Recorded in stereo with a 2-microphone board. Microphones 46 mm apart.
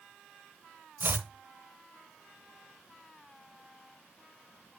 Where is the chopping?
50° right (ahead or behind), 0.7 m.